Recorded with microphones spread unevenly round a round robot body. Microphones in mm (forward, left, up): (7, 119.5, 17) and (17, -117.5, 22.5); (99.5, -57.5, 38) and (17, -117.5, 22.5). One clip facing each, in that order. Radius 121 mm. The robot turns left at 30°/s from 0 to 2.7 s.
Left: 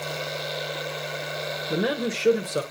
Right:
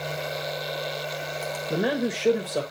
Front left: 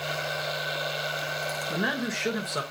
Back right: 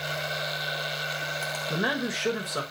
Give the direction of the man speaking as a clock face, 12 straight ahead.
6 o'clock.